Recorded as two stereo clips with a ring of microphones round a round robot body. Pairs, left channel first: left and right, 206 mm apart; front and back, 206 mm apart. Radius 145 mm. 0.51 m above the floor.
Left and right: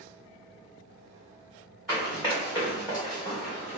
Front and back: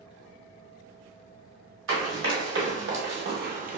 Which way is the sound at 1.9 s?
Straight behind.